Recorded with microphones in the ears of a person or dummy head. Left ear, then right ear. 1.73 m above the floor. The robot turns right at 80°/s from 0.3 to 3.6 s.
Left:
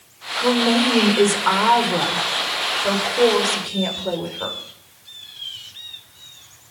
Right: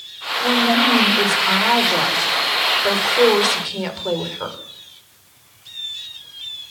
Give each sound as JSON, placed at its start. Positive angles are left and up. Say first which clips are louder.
{"t": 0.4, "sound": "a woman speaking", "louder": "right 2 dB", "azimuth_deg": 60, "distance_m": 5.0}